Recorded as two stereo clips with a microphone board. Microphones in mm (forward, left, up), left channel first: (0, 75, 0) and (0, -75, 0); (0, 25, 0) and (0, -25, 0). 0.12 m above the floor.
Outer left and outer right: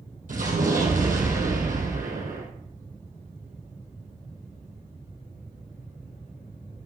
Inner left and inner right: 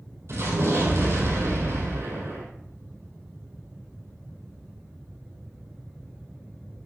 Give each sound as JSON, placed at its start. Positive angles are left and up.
{"t": 0.3, "sound": "an explosion", "side_deg": -70, "distance_m": 3.5}